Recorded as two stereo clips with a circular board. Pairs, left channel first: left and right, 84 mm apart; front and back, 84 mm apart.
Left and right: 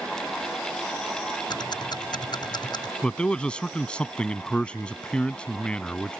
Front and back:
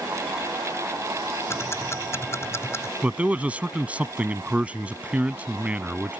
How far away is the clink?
No clink in this recording.